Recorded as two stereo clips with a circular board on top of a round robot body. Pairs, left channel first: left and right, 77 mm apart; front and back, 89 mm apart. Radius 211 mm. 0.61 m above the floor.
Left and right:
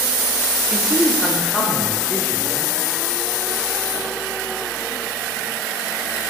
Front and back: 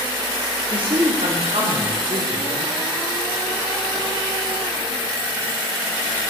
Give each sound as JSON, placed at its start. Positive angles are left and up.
{"t": 0.7, "sound": "a man speaking", "azimuth_deg": -160, "distance_m": 2.5}